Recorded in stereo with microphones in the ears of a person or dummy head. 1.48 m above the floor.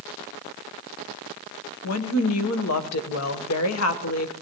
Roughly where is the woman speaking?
Left.